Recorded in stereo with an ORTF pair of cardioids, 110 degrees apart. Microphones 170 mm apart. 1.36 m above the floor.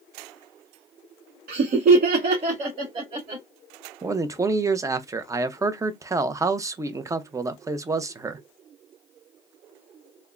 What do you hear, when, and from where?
1.5 s laughter: 60° right, 0.8 m; by 3.4 s 35° right, 1.8 m
4.0 s a man speaking: 20° right, 0.5 m